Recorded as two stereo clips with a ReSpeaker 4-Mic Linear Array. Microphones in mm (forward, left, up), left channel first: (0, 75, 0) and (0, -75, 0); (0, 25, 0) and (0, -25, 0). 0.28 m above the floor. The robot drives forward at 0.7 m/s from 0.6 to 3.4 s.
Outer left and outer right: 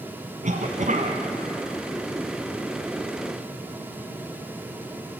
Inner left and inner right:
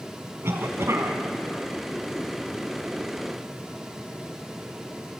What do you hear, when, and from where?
0.4 s a cough: 60° right (ahead or behind), 1.9 m